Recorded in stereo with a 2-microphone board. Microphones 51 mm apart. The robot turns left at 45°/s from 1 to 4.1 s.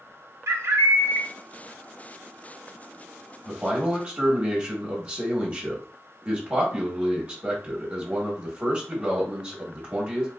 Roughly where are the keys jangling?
I don't hear keys jangling.